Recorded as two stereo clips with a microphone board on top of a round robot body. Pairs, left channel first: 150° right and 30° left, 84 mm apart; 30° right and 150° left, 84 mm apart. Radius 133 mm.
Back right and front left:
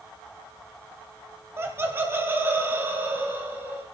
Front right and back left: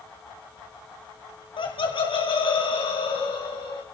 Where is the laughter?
30° right, 3.5 m; by 3.8 s 35° right, 5 m.